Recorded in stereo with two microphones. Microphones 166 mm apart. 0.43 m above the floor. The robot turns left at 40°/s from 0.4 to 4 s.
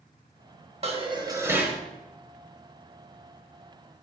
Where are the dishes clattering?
140° right, 1.2 m; by 1.8 s 175° right, 1.2 m.